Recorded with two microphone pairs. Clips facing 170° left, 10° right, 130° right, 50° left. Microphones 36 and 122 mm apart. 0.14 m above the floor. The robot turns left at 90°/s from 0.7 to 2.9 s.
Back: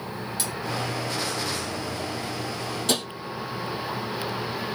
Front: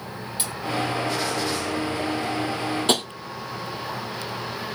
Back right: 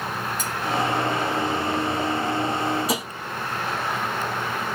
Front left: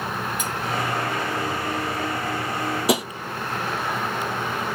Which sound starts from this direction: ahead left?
Tapping, at 2.9 s.